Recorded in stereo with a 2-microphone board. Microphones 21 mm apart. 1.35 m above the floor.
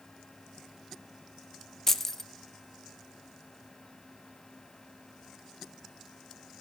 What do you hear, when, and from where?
1.9 s keys jangling: 20° left (ahead or behind), 0.6 m